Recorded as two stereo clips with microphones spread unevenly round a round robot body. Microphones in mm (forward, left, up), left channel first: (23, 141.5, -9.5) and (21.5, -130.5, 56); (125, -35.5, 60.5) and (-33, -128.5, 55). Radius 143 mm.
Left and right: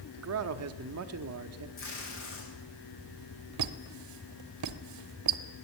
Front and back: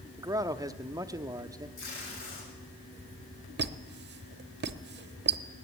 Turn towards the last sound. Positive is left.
turn(degrees=-120)